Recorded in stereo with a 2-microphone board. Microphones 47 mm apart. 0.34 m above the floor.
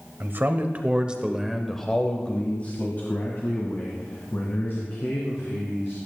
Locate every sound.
0.2 s a man speaking: 50° right (ahead or behind), 1.3 m; by 6.0 s 55° left (ahead or behind), 4 m